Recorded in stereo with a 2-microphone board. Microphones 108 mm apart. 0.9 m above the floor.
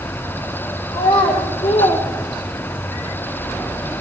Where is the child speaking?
90° left, 2.5 m; by 2.9 s 35° left (ahead or behind), 1.3 m.